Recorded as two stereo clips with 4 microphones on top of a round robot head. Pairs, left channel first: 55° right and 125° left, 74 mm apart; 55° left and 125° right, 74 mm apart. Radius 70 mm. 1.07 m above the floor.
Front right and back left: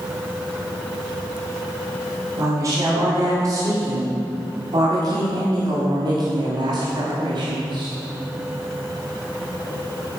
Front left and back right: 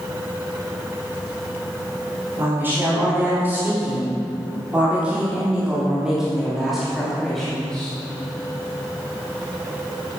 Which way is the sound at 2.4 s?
170° left.